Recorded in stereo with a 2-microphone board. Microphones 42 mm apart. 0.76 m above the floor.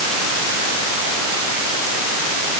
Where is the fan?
No fan in this recording.